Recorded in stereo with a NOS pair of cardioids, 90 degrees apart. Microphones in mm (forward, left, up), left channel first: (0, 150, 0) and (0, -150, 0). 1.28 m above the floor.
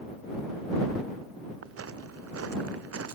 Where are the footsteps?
50° right; by 3.1 s 55° right.